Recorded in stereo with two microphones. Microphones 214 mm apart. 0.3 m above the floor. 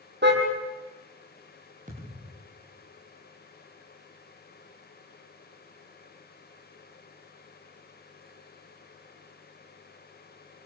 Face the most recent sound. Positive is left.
turn(degrees=-35)  # may be behind; listen again after turning